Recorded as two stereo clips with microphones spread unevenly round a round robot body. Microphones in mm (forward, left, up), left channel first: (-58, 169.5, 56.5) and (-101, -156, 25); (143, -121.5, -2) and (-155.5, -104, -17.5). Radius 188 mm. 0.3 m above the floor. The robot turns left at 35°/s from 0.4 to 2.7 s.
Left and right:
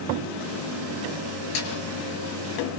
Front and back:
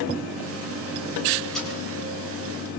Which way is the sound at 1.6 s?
85° left.